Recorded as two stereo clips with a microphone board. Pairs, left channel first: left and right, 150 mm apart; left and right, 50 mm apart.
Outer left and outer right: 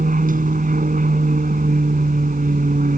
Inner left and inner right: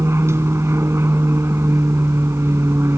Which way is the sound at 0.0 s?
65° right (ahead or behind).